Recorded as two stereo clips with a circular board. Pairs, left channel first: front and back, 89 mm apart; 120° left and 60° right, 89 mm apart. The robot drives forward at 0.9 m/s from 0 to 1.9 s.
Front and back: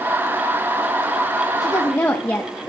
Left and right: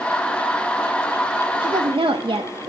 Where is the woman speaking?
50° right, 0.8 m; by 2.7 s 70° right, 0.6 m.